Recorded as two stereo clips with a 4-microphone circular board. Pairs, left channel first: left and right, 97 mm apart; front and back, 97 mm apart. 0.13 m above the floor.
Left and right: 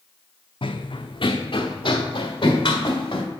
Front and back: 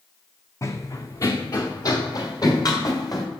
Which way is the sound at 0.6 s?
60° left.